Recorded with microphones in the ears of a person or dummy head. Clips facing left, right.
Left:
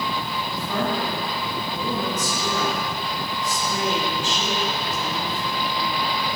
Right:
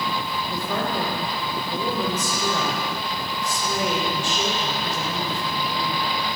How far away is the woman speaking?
About 4.5 m.